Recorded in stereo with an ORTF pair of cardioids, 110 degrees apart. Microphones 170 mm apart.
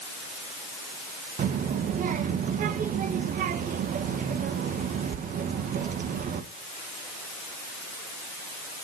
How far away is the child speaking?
About 1.5 m.